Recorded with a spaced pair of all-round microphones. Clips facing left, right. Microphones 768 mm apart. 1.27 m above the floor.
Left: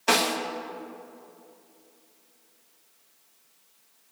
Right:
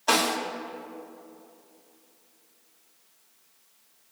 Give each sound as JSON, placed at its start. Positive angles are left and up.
{"t": 0.1, "sound": "a snare drum", "side_deg": 55, "distance_m": 1.6}